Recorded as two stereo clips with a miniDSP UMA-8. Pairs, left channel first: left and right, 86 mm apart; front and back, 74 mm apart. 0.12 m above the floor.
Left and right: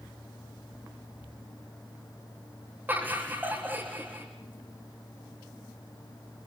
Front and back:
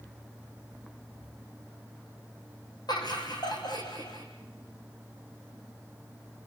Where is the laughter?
20° right, 6 m.